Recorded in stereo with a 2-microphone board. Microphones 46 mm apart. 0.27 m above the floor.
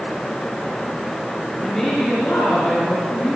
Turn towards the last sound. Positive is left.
turn(degrees=5)  # may be behind; listen again after turning